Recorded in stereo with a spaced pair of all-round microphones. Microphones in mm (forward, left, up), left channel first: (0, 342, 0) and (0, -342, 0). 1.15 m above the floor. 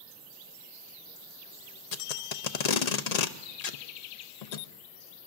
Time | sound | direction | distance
1.9 | tape being pulled | 70° left (ahead or behind) | 0.7 m